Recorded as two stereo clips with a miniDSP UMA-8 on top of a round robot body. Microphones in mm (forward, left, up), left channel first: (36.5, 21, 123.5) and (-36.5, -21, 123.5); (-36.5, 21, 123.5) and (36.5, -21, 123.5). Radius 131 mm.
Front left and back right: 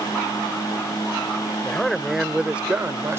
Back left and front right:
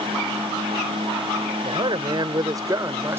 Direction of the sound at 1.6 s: 50° right.